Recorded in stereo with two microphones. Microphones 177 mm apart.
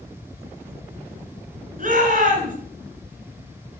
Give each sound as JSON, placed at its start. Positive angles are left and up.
{"t": 1.8, "sound": "a shout", "side_deg": -50, "distance_m": 2.0}